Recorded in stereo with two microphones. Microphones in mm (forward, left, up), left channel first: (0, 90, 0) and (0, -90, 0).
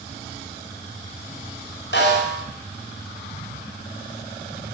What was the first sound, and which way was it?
A snare drum, 80° left.